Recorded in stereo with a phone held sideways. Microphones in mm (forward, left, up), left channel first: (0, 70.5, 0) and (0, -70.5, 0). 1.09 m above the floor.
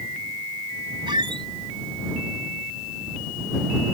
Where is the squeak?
35° right (ahead or behind).